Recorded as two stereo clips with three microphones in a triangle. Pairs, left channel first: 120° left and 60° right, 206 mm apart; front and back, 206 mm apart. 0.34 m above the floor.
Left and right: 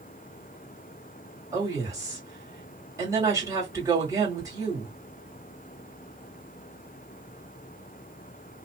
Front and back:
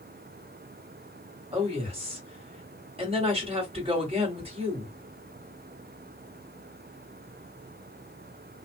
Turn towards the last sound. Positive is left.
turn(degrees=-130)